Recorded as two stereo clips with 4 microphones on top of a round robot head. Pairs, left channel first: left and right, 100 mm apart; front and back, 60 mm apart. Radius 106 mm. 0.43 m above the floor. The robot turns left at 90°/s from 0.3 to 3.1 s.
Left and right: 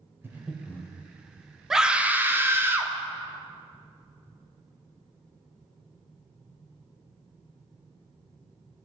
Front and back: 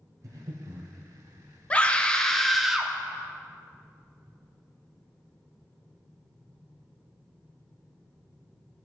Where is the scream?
10° right, 1.1 m; by 2.9 s 120° right, 1.1 m.